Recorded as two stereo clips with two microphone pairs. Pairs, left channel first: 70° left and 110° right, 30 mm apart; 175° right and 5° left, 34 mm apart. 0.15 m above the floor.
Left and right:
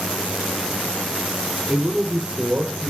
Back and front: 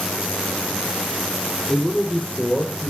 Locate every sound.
1.7 s a man speaking: 105° right, 1.4 m; by 2.9 s 145° right, 2 m